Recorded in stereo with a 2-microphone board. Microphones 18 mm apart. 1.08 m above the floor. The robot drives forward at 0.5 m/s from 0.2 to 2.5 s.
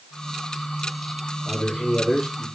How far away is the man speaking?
About 2.5 m.